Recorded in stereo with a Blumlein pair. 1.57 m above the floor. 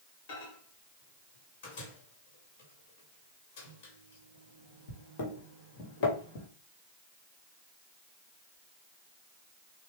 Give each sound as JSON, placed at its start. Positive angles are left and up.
{"t": 0.3, "sound": "a microwave", "azimuth_deg": 45, "distance_m": 1.9}